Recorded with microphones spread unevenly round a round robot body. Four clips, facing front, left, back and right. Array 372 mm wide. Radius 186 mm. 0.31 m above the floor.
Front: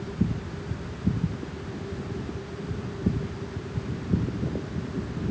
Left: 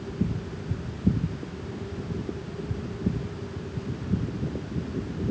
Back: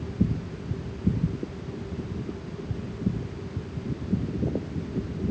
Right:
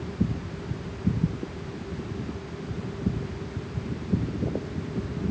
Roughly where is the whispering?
I don't hear whispering.